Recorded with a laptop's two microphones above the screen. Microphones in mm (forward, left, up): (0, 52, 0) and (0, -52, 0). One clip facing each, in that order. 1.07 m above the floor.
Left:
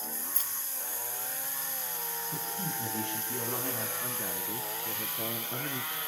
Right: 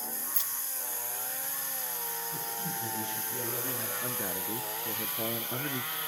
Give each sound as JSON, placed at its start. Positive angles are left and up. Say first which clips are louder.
{"t": 0.3, "sound": "keys jangling", "louder": "even", "side_deg": 40, "distance_m": 0.7}
{"t": 2.3, "sound": "a man speaking", "louder": "left 2 dB", "side_deg": 65, "distance_m": 7.0}
{"t": 4.0, "sound": "a man speaking", "louder": "right 2 dB", "side_deg": -10, "distance_m": 0.6}